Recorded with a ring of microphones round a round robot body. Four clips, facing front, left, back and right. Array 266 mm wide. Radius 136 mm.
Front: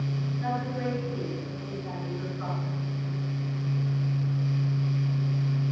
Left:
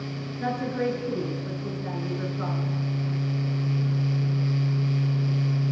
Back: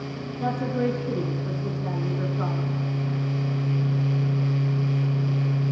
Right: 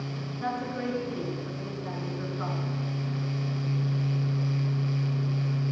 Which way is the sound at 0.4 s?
150° left.